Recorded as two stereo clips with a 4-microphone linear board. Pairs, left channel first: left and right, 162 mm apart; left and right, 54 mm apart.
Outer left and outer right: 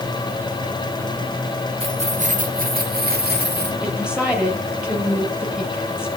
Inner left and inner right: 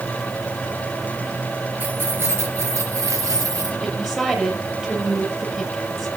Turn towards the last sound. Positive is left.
turn(degrees=-5)  # may be behind; listen again after turning